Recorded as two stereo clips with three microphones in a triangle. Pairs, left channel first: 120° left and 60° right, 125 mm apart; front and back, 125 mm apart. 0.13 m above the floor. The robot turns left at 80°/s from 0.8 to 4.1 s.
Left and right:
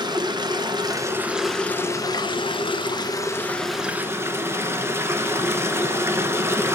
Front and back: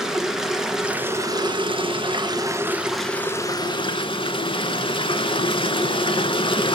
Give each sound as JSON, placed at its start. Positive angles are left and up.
{"t": 0.0, "sound": "running water", "azimuth_deg": -95, "distance_m": 0.9}